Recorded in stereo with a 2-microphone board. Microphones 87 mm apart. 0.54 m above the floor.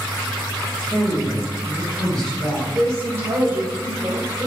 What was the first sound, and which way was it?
A woman speaking, 25° left (ahead or behind).